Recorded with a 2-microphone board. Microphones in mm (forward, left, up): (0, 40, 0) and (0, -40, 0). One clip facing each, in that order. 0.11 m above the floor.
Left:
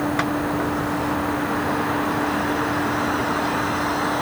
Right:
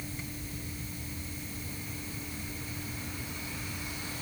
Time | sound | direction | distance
0.0 | a vehicle | 85° left | ?